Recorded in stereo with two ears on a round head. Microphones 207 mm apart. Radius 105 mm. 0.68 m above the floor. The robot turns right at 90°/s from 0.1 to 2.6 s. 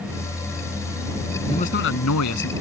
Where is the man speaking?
15° left; by 2.5 s 110° left.